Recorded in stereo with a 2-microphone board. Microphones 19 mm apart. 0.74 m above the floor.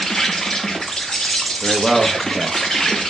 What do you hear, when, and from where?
0.0 s an insect: 30° left (ahead or behind), 0.7 m
1.6 s a man speaking: 15° right (ahead or behind), 0.7 m